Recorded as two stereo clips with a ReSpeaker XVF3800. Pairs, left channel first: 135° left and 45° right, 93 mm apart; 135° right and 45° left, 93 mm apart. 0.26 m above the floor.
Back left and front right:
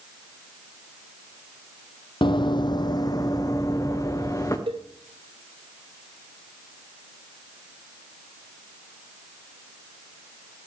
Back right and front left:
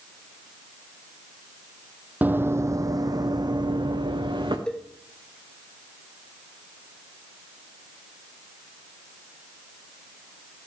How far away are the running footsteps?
About 0.6 m.